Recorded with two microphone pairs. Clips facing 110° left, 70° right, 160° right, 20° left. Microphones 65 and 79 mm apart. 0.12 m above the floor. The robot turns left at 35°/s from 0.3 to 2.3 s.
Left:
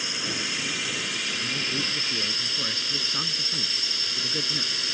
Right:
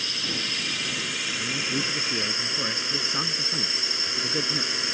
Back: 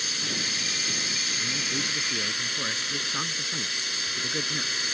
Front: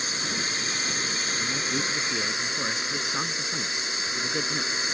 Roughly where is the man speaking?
Ahead.